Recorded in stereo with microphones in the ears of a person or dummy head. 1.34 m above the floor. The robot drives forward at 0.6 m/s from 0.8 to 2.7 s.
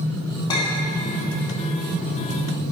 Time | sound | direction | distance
0.5 | a clink | 20° left (ahead or behind) | 1.8 m